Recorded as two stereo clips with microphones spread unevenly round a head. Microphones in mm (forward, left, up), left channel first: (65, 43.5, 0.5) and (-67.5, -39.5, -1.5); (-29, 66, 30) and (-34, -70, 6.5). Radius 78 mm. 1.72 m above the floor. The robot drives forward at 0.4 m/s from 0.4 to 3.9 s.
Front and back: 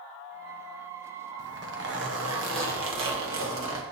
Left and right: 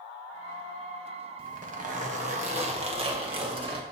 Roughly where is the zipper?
Behind right.